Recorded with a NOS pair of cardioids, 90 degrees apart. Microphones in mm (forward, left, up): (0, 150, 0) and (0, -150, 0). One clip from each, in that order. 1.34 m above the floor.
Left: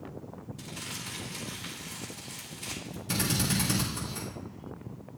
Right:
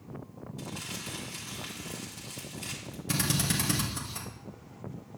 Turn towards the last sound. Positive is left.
turn(degrees=-25)